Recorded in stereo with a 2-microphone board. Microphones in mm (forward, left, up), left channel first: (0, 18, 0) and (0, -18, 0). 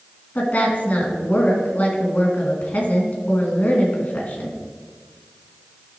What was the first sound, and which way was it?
A woman speaking, 45° left (ahead or behind).